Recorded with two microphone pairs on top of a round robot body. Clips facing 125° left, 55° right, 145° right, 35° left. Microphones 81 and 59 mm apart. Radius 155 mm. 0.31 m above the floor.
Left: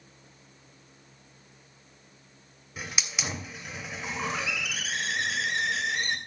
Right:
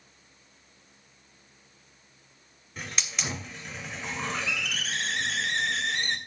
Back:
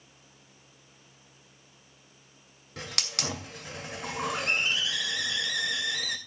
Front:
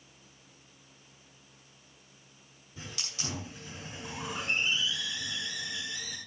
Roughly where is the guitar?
No guitar in this recording.